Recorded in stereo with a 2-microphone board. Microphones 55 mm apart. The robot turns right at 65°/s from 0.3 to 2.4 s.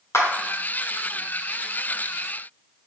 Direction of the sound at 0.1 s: 55° left (ahead or behind).